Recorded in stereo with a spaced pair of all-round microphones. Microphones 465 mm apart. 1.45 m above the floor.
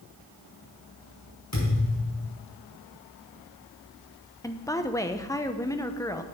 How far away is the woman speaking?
About 0.7 m.